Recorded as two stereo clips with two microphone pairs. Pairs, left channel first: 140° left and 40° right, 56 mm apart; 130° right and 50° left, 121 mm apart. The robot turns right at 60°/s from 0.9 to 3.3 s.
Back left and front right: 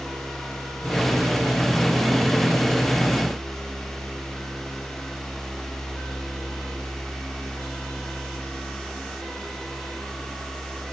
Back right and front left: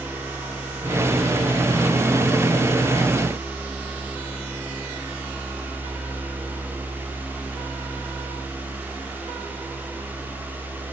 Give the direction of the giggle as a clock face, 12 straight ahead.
I don't hear a giggle.